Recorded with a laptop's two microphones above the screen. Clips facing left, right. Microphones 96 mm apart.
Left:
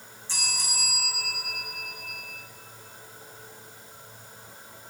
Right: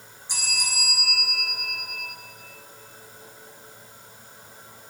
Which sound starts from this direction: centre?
A bell, at 0.3 s.